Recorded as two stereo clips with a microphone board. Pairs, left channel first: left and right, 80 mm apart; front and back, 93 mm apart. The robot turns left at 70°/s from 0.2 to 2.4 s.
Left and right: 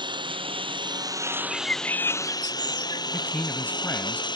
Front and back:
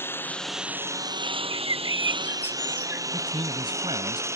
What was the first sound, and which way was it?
A lawn mower, 65° right.